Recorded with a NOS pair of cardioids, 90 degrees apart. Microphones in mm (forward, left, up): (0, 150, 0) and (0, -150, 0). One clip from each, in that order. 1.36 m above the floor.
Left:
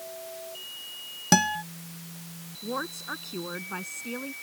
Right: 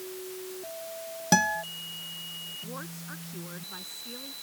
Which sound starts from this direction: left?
A woman speaking, at 2.6 s.